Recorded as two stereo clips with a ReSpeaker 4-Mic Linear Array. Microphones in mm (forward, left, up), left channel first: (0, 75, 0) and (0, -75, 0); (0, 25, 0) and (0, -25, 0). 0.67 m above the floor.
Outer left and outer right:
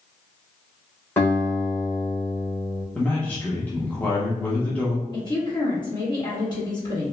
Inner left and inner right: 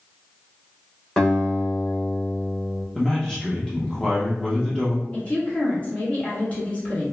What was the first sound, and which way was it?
A guitar, 15° left (ahead or behind).